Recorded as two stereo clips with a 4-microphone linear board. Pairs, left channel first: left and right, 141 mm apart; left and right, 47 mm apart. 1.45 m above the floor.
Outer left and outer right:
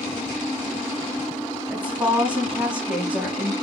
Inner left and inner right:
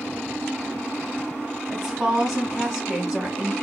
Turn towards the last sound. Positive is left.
turn(degrees=-10)  # may be behind; listen again after turning